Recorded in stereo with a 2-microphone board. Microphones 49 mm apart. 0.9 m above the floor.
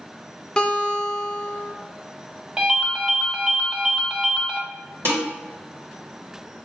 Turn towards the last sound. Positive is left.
turn(degrees=-60)  # may be behind; listen again after turning